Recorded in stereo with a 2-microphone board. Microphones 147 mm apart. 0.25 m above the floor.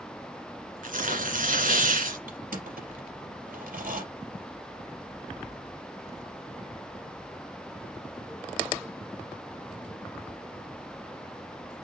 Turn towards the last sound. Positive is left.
turn(degrees=-80)